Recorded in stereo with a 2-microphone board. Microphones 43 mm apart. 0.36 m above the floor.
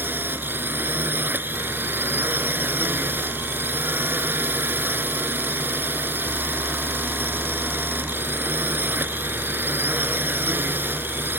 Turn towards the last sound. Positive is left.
turn(degrees=-55)  # may be behind; listen again after turning